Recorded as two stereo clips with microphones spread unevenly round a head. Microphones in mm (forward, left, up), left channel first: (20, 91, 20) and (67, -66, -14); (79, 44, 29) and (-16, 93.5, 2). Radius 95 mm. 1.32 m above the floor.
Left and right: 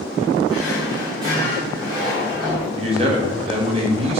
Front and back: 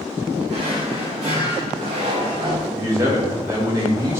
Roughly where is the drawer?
Behind right.